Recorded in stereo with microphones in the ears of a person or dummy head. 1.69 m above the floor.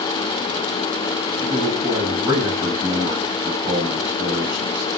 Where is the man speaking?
20° right (ahead or behind), 3 m.